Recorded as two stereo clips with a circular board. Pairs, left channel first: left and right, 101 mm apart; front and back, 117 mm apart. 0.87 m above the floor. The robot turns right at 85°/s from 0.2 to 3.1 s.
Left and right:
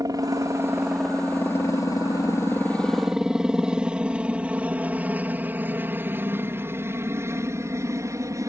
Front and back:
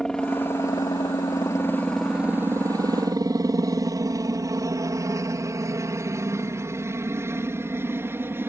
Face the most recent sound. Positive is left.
turn(degrees=-120)